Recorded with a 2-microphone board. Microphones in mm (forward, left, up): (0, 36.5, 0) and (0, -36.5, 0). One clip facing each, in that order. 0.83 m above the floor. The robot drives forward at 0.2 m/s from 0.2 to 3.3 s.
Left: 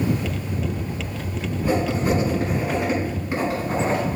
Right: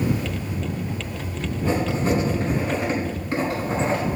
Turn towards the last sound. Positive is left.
turn(degrees=15)  # may be behind; listen again after turning